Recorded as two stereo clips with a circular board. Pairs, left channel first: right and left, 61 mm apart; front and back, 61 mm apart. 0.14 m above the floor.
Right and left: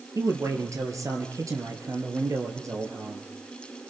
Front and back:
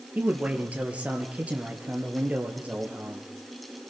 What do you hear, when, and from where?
0.1 s a man speaking: 115° left, 2.5 m